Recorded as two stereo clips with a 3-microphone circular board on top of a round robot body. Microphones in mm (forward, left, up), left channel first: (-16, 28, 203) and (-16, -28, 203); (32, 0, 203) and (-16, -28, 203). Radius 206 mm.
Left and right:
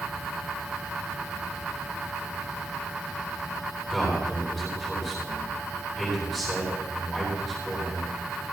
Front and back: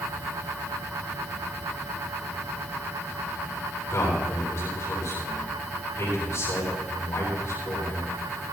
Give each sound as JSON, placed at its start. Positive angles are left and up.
{"t": 3.9, "sound": "a man speaking", "azimuth_deg": -5, "distance_m": 8.0}